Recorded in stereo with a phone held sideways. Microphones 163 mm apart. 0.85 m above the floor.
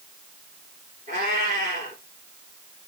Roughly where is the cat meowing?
Right.